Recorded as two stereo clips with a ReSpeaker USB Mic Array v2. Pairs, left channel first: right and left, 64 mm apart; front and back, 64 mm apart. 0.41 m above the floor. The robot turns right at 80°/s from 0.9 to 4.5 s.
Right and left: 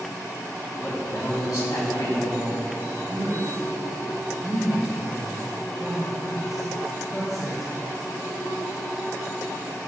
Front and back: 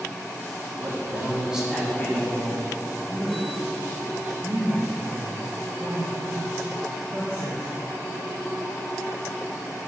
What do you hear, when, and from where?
0.8 s a man speaking: 155° right, 3 m; by 2.7 s 15° right, 3 m
3.1 s a man speaking: 70° left, 2 m; by 7.7 s straight behind, 2 m